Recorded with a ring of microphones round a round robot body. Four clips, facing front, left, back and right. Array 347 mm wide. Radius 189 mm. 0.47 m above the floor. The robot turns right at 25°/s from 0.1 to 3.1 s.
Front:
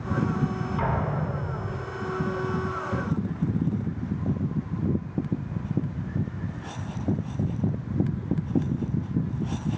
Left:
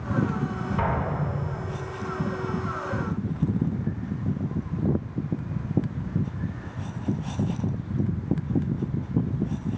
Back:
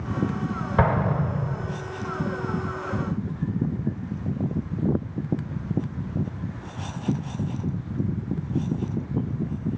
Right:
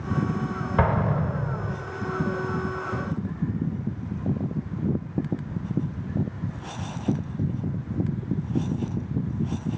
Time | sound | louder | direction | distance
0.8 | an explosion | right 4 dB, back 7 dB | 140° right | 1.9 m